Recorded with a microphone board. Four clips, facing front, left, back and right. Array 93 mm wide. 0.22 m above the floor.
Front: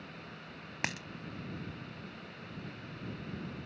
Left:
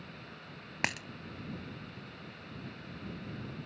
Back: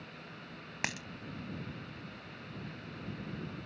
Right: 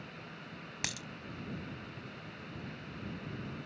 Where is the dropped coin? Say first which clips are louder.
Left 8 dB, even; 95° left.